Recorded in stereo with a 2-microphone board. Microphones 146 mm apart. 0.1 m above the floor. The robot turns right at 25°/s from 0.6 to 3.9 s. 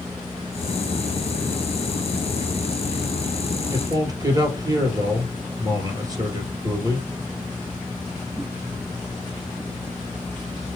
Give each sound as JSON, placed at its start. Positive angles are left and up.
{"t": 3.7, "sound": "a man speaking", "side_deg": -20, "distance_m": 2.0}